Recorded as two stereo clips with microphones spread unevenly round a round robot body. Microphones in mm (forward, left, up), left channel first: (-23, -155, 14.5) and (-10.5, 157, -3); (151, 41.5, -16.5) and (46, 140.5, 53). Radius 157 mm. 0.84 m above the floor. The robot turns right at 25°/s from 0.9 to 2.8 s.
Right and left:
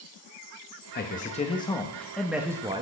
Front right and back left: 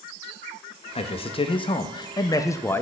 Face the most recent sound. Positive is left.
turn(degrees=15)